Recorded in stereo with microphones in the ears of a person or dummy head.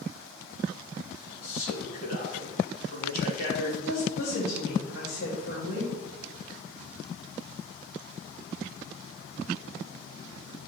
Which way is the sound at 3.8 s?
80° left.